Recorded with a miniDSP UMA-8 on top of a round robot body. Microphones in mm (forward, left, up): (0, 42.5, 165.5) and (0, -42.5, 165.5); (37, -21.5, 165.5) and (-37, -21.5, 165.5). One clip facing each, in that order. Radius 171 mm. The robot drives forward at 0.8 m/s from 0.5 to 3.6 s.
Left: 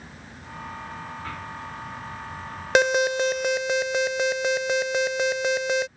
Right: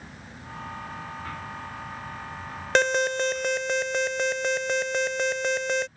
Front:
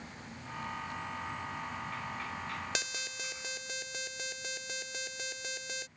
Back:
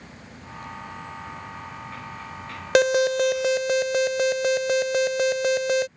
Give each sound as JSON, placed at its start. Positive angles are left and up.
{"t": 2.8, "sound": "an alarm", "azimuth_deg": 170}